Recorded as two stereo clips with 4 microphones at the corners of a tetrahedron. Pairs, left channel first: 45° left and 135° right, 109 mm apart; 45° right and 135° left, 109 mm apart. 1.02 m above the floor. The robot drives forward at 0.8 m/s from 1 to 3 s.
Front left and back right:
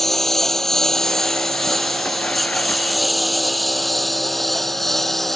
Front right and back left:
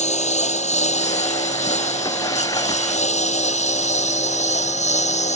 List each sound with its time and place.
0.0 s a lawn mower: 40° right